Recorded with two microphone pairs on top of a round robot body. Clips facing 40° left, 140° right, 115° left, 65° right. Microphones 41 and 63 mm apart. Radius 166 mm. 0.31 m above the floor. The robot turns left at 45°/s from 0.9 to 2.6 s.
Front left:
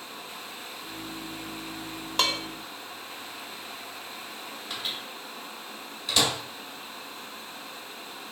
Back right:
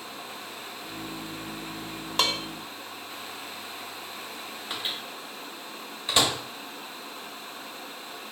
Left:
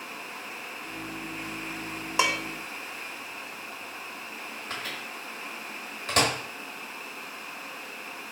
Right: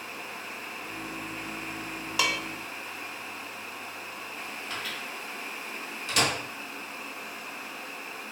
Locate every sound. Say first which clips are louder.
2.2 s dishes clattering: even, left 3 dB; 130° left, 0.6 m; by 2.4 s 120° left, 0.6 m
4.7 s a microwave: back right 1 dB, left 1 dB; 155° left, 1.5 m